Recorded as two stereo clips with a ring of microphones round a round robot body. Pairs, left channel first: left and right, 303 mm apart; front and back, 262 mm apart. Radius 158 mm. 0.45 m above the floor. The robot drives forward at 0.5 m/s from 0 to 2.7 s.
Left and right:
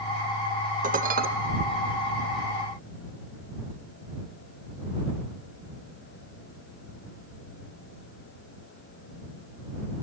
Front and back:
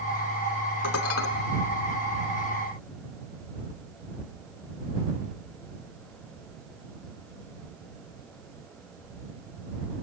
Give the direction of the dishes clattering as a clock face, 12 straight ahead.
1 o'clock.